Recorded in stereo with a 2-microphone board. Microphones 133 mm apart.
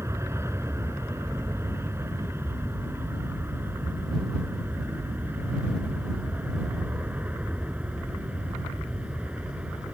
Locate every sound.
0.0 s an aircraft: 20° right (ahead or behind); by 9.9 s 10° right (ahead or behind)